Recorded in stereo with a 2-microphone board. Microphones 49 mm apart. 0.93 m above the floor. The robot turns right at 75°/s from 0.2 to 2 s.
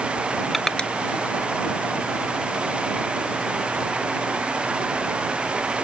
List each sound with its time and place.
0.5 s crushing: centre (ahead or behind); by 0.9 s 25° left (ahead or behind)